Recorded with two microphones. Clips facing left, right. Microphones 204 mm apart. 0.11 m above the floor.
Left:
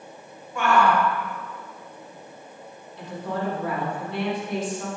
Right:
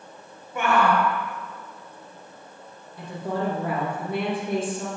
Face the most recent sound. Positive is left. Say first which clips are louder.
# right 1 dB
turn(degrees=-50)  # may be behind; listen again after turning